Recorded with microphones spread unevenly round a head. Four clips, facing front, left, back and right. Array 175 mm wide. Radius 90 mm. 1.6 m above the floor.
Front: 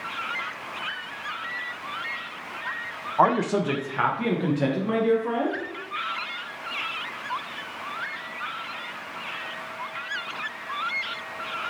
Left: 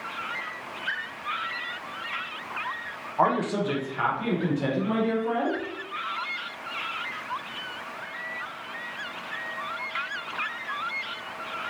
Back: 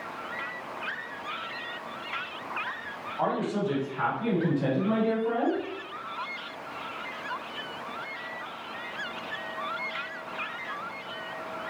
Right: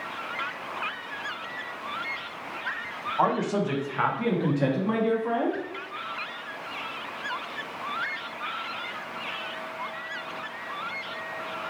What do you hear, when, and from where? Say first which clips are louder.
3.2 s a man speaking: left 1 dB, front 7 dB; 10° left, 0.6 m; by 5.6 s 25° right, 1.7 m